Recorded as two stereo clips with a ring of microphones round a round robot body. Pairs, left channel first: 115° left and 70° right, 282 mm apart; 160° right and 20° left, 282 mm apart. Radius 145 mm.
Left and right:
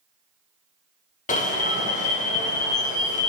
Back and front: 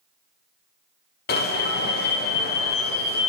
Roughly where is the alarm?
Behind.